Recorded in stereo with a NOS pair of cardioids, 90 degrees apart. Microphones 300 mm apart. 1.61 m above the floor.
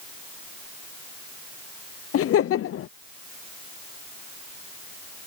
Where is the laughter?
50° left.